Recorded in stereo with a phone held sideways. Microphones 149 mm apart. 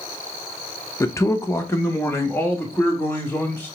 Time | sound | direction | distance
1.0 | a man speaking | 20° left (ahead or behind) | 0.6 m